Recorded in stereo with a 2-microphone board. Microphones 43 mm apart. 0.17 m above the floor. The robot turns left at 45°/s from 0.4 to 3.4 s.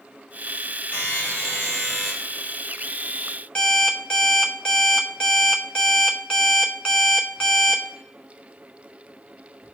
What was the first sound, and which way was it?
A buzzer, 105° left.